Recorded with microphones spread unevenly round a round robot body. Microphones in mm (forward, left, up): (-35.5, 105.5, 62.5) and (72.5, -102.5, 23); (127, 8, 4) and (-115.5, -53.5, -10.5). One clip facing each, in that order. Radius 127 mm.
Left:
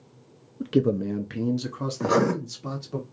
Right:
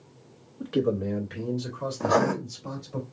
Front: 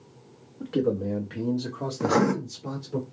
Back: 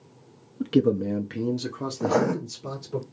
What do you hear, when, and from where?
0.6 s a man speaking: 175° left, 0.6 m; by 3.0 s 115° left, 2 m
2.0 s writing: 65° left, 1.0 m